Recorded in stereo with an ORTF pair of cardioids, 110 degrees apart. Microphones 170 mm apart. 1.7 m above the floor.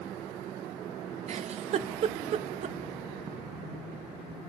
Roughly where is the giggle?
Ahead right.